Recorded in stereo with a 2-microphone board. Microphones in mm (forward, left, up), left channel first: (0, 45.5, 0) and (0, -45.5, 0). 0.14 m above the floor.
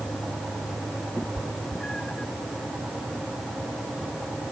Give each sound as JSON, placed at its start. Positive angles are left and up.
{"t": 1.2, "sound": "a cat meowing", "side_deg": 10}